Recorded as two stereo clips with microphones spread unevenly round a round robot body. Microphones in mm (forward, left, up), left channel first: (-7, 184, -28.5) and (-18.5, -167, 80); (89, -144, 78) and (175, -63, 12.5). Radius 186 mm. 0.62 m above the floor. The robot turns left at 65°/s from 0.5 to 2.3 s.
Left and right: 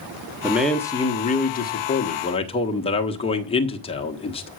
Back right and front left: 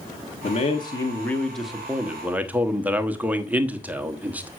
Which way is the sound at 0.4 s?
165° left.